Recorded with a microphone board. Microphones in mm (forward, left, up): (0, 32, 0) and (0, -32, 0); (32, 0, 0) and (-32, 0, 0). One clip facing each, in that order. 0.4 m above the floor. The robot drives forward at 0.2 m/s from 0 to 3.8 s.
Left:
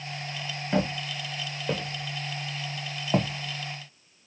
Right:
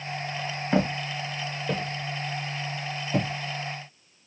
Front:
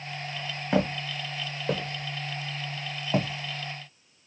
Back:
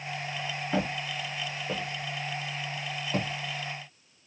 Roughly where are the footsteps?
Ahead.